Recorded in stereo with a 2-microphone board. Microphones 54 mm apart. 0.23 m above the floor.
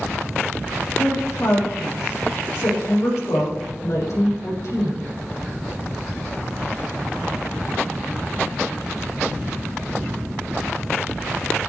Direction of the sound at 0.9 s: 65° left (ahead or behind).